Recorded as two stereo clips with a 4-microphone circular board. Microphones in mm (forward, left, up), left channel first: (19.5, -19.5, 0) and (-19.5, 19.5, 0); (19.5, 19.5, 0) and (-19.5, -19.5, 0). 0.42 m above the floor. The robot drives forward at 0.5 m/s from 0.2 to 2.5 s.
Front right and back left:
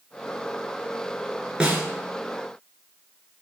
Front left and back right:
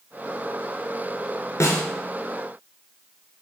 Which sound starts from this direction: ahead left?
A snare drum, at 1.6 s.